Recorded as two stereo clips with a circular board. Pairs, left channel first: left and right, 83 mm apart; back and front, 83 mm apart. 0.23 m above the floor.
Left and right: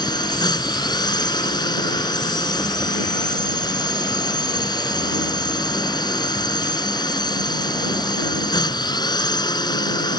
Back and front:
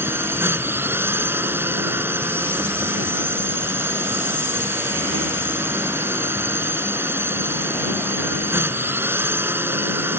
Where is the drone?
65° left.